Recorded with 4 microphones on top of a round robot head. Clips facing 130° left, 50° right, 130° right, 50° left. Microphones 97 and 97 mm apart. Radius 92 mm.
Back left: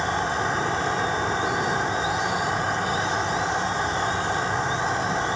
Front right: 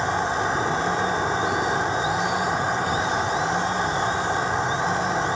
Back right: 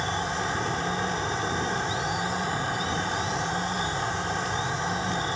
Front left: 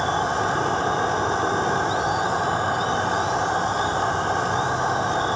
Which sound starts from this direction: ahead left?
An insect, at 0.0 s.